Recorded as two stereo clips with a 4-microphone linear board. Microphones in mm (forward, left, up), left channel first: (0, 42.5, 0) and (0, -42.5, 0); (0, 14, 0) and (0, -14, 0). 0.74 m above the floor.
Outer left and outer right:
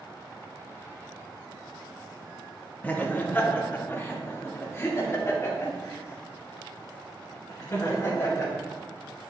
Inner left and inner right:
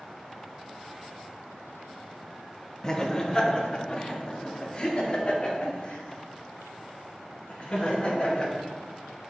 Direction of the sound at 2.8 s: 20° left (ahead or behind).